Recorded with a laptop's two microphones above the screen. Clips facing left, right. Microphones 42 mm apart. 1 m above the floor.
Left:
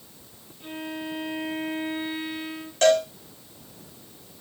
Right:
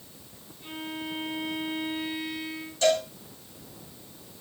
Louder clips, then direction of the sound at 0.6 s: Left 2 dB; 40° left (ahead or behind).